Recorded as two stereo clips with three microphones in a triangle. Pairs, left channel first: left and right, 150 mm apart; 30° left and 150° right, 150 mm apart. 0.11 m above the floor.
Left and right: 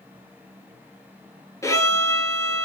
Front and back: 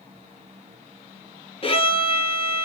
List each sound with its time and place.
1.6 s a violin: 35° left, 2 m